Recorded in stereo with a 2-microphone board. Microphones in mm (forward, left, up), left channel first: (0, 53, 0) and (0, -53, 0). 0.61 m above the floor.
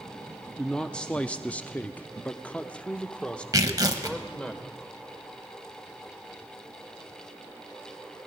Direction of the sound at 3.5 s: 35° right (ahead or behind).